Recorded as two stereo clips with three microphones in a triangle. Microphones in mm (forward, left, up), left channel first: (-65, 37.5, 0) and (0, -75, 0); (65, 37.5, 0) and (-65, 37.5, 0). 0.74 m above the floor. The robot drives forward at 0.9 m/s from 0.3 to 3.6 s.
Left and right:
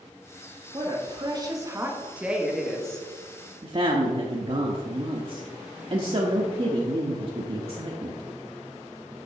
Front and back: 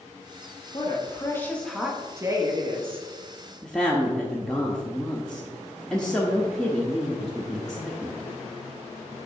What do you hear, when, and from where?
0.7 s a woman speaking: 30° right, 1.4 m; by 3.1 s 155° right, 1.6 m
3.6 s a woman speaking: 85° right, 0.9 m